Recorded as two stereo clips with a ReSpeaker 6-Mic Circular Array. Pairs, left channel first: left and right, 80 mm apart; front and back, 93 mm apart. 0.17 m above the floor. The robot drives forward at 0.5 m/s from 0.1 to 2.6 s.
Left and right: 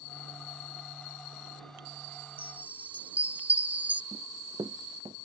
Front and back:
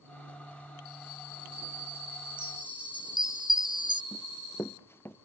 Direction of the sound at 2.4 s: 155° right.